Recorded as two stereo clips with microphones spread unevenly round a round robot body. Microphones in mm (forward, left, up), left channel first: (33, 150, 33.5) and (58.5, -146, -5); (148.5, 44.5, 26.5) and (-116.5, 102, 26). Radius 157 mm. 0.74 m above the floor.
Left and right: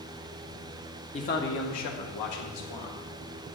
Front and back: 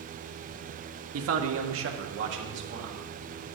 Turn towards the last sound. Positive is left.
turn(degrees=120)